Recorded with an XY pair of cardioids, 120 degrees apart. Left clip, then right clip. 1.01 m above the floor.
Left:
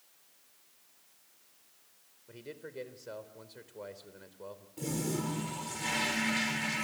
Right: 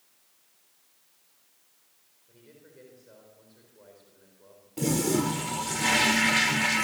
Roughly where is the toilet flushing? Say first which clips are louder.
Right 9 dB; ahead right.